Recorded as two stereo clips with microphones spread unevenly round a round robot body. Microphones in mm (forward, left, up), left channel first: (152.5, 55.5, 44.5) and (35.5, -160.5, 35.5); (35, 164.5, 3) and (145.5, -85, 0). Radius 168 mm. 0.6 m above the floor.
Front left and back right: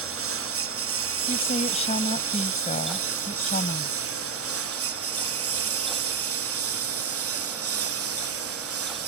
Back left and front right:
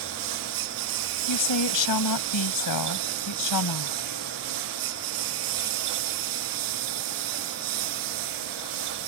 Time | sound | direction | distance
0.0 | a lawn mower | 90° right | ?
1.3 | a woman speaking | 130° left | ?